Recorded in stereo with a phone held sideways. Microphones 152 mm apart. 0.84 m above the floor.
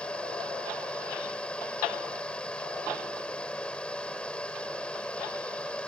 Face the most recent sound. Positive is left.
turn(degrees=5)  # may be behind; listen again after turning